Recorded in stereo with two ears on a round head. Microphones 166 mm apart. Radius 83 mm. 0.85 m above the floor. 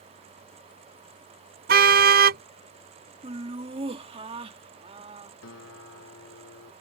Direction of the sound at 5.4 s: 85° left.